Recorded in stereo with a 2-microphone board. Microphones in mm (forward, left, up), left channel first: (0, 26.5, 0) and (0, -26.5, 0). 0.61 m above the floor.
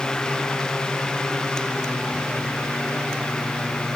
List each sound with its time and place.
Only background noise.